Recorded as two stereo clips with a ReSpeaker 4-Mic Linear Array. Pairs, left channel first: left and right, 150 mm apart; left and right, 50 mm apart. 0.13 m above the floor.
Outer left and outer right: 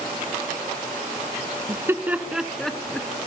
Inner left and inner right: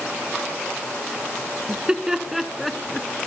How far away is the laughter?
About 1.1 m.